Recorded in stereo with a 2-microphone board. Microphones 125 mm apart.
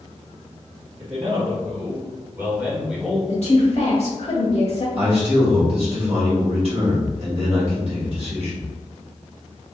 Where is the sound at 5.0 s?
55° right (ahead or behind), 1.9 m.